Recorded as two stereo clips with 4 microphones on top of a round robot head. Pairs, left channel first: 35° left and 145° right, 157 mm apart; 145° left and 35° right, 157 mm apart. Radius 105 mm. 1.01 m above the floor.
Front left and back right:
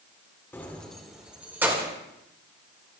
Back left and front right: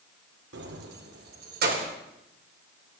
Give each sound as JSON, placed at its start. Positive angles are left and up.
{"t": 0.5, "sound": "keys jangling", "azimuth_deg": -40, "distance_m": 1.7}